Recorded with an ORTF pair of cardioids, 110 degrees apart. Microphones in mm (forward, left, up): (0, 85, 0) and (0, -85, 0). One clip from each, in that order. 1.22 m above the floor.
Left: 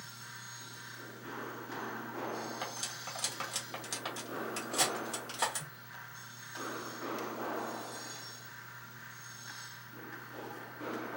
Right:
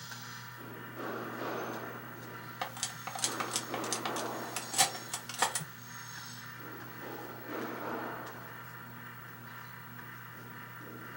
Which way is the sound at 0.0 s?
60° right.